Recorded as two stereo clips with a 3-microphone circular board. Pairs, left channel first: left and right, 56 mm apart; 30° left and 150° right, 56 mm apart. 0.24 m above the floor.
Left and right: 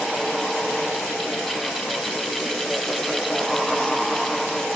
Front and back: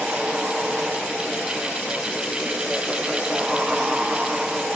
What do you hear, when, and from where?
Only background noise.